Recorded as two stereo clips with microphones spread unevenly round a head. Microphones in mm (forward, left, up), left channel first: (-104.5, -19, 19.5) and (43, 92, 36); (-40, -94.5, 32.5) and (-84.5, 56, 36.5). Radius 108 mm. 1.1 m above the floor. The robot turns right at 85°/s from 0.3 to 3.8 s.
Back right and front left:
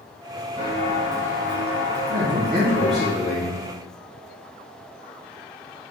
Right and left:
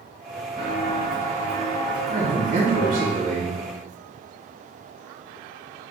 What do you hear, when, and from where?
0.6 s footsteps: 10° right, 1.2 m; by 3.1 s 65° right, 2.5 m
2.1 s a man speaking: 55° left, 1.1 m; by 3.6 s straight behind, 1.1 m